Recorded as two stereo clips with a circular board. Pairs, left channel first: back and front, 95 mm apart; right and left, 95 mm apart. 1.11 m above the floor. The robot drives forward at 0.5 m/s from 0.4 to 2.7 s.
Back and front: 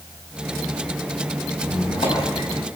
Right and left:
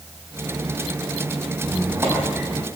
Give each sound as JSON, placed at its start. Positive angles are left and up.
{"t": 1.6, "sound": "a squeak", "azimuth_deg": 160, "distance_m": 5.5}